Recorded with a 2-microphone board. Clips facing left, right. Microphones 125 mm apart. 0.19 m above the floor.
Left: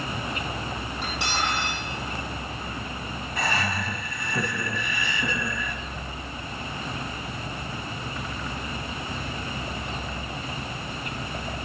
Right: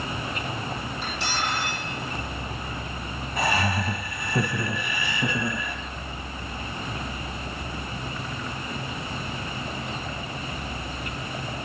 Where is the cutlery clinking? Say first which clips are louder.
Left 2 dB; 60° left (ahead or behind), 4 m.